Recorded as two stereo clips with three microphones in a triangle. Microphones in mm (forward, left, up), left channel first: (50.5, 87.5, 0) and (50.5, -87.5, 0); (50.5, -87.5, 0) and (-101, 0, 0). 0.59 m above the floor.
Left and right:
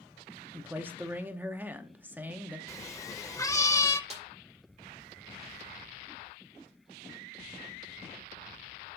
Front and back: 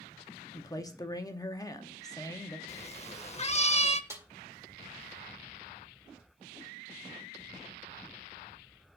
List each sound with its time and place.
0.5 s a man speaking: 30° right, 0.8 m
2.7 s a cat meowing: 20° left, 0.5 m
4.1 s a snare drum: 135° right, 1.8 m